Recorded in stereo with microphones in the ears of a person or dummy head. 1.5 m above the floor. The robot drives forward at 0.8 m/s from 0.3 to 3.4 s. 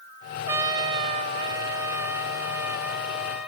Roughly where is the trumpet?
Right.